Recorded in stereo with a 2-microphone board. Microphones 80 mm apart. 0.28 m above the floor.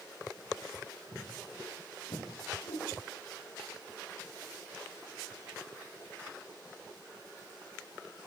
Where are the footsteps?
85° left, 9.5 m; by 2.2 s 90° left, 10 m.